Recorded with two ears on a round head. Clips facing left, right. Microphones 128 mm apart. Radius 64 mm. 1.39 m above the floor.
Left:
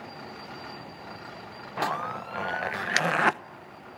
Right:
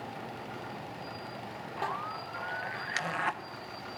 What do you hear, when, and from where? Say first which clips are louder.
1.8 s a zipper: left 7 dB; 75° left (ahead or behind), 0.9 m